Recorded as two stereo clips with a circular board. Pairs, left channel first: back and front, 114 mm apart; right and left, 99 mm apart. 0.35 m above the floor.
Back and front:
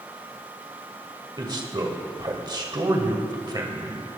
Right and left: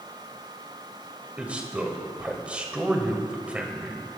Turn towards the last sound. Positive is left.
turn(degrees=20)